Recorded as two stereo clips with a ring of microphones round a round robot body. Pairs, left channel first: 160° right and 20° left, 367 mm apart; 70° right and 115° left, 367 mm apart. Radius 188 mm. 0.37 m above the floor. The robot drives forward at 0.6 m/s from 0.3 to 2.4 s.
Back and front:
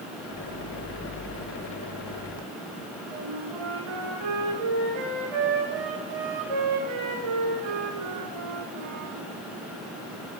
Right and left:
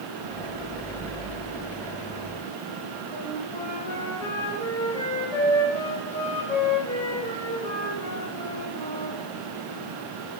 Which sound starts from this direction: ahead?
A flute, at 3.1 s.